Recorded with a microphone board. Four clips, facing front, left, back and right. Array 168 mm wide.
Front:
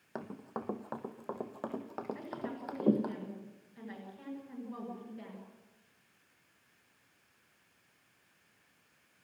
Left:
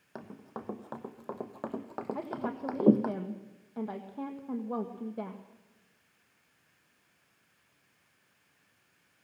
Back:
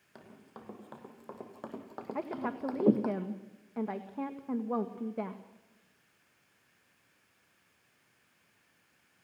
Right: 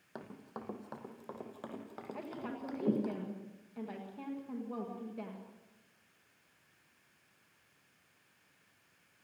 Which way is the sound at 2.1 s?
155° left.